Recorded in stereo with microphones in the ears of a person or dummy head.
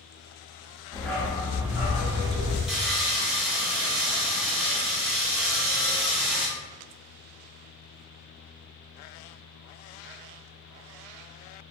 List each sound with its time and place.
0.9 s a dog barking: 15° left (ahead or behind), 1.2 m; by 2.6 s 45° right (ahead or behind), 1.4 m
2.7 s sawing: 5° right (ahead or behind), 0.8 m